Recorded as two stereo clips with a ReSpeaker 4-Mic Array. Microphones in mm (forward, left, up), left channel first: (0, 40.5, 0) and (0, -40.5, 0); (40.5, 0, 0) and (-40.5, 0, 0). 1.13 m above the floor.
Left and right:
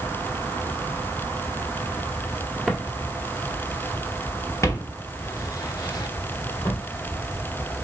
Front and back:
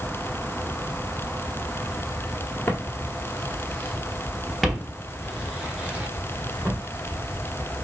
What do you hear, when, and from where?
2.7 s footsteps: 5° right, 1.2 m; by 6.8 s 110° left, 2 m